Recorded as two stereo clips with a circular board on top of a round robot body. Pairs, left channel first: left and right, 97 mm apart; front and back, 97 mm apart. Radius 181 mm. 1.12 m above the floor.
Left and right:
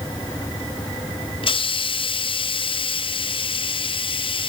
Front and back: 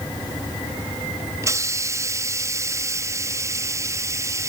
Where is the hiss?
120° left.